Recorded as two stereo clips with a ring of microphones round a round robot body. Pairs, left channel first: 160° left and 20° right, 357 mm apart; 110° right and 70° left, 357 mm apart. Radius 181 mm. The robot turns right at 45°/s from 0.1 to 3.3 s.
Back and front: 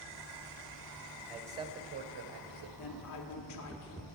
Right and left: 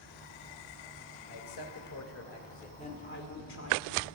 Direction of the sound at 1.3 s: 115° right.